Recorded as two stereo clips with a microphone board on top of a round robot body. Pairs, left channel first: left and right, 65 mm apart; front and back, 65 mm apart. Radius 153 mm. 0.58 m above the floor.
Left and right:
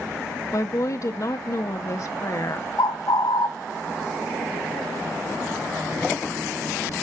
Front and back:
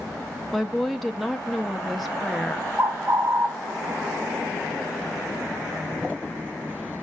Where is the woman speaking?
90° left, 1.1 m.